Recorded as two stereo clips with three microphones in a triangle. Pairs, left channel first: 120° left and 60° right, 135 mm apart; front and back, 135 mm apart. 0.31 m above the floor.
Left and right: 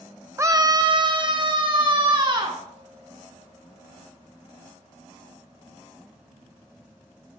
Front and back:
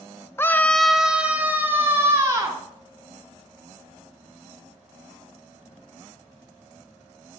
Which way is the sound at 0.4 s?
35° right.